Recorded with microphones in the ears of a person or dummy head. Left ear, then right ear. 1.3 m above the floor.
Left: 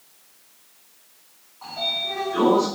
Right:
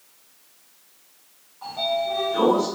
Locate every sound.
1.6 s a sliding door: 5° left (ahead or behind), 1.1 m